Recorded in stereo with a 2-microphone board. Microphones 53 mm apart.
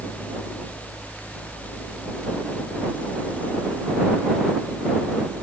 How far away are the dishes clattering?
I don't hear dishes clattering.